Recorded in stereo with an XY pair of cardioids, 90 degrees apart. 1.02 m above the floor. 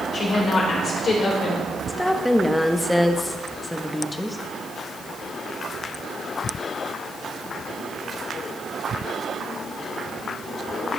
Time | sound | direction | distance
0.1 | a woman speaking | 55° left | 3 m
1.9 | a woman speaking | 10° left | 0.9 m